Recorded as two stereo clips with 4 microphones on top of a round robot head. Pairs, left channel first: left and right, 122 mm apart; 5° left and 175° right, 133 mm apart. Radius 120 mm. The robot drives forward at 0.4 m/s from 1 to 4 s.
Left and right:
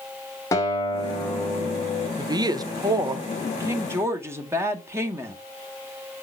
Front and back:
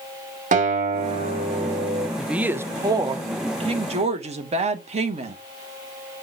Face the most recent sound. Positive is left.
turn(degrees=-155)